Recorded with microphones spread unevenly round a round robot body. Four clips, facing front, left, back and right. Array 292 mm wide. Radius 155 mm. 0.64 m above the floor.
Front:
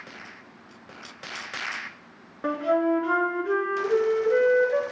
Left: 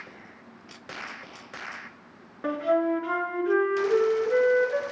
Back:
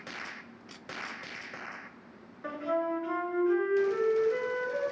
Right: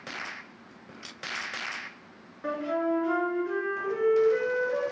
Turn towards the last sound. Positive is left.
turn(degrees=20)